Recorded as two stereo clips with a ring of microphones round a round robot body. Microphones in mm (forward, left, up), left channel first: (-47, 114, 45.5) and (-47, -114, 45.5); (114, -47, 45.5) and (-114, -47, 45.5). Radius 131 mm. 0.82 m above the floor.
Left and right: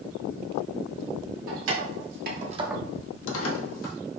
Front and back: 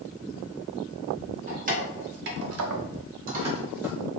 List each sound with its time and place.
1.5 s keys jangling: 120° right, 1.7 m; by 4.0 s 95° left, 1.3 m